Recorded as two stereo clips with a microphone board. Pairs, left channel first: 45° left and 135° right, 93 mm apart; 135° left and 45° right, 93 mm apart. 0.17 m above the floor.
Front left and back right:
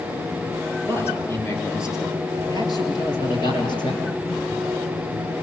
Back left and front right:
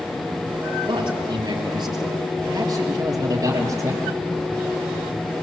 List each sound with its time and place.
0.9 s a man speaking: 20° right, 4 m; by 4.0 s 10° left, 5 m